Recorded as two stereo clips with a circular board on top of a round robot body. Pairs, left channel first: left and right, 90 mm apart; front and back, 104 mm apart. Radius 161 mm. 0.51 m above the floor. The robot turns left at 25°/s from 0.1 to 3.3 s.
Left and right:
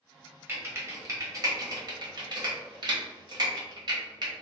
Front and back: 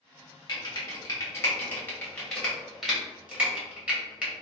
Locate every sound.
0.5 s typing on a keyboard: 35° right, 1.3 m; by 4.3 s 105° right, 1.3 m